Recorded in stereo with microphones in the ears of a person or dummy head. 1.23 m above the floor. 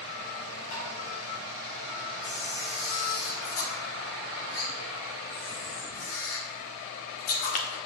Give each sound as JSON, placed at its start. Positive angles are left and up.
{"t": 0.7, "sound": "tapping", "side_deg": 55, "distance_m": 3.5}
{"t": 2.2, "sound": "a camera shutter", "side_deg": 45, "distance_m": 0.9}